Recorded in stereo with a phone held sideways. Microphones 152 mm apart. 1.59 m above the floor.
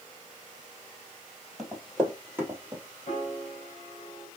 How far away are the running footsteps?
About 2.5 m.